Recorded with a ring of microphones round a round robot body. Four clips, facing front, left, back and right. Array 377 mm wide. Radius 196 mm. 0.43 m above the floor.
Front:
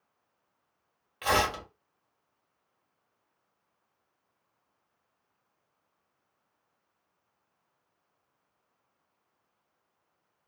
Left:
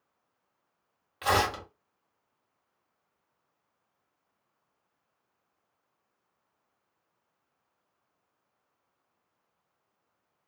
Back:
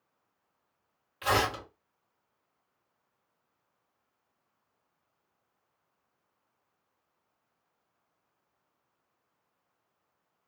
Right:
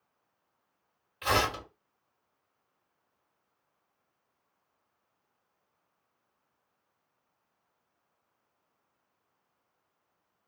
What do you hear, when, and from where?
1.2 s tearing paper: 65° left, 1.6 m